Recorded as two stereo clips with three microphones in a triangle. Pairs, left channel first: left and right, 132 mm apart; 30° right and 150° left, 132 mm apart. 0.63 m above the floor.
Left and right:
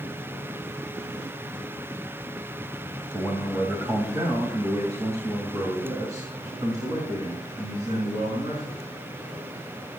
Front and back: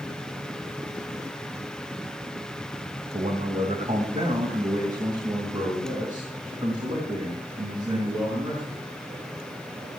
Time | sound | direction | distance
3.1 | a man speaking | 165° right | 2.5 m